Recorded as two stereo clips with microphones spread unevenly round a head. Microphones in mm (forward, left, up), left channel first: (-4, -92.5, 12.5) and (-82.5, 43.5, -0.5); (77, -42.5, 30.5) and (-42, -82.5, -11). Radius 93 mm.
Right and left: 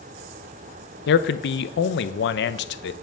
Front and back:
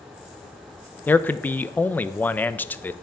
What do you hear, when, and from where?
1.1 s a man speaking: 65° right, 0.5 m